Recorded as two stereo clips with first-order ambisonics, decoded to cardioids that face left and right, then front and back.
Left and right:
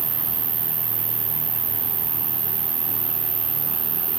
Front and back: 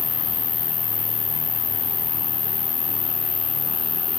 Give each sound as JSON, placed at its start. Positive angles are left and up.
{"t": 0.0, "sound": "an insect", "azimuth_deg": -45}